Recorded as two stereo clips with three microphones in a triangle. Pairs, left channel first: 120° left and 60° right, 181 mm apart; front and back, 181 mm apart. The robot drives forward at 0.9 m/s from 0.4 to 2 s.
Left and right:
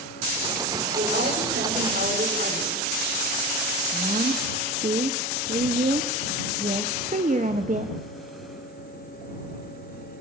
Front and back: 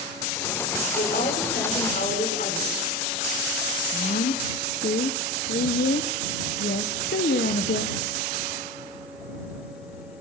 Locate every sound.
1.0 s a woman speaking: 30° right, 7 m; by 2.8 s 35° right, 6 m
3.9 s a woman speaking: 10° right, 1.3 m